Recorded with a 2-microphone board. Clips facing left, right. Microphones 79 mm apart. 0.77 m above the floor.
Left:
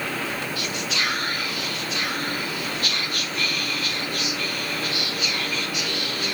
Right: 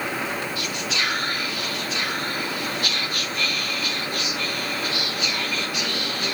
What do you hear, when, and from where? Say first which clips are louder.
0.6 s whispering: even; 15° right (ahead or behind), 4 m